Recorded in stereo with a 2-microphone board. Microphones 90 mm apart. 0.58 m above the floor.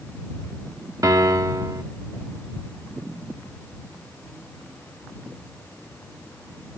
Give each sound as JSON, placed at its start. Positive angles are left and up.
{"t": 1.0, "sound": "a piano", "side_deg": -45}